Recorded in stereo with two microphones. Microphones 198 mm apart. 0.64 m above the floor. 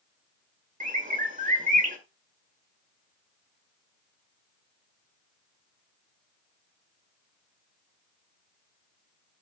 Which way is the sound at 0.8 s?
40° right (ahead or behind).